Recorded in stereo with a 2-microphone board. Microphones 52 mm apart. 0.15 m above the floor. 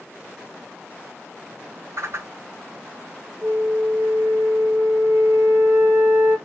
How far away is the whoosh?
About 0.6 m.